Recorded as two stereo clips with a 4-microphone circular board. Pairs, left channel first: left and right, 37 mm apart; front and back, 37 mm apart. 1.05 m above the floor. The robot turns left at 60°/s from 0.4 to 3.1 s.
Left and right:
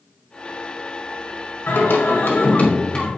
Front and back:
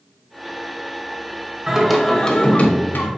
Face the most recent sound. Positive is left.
turn(degrees=20)